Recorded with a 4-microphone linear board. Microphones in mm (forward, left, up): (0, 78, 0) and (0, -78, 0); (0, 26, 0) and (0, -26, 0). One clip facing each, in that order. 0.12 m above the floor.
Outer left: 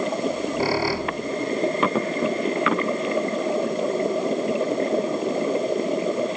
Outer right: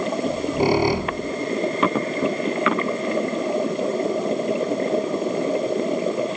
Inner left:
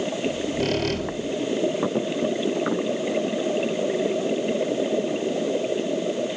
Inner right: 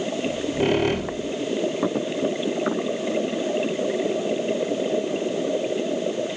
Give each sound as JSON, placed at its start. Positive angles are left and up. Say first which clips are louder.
{"t": 0.2, "sound": "a squeak", "louder": "outer right 6 dB, inner right 4 dB", "side_deg": -20, "distance_m": 1.5}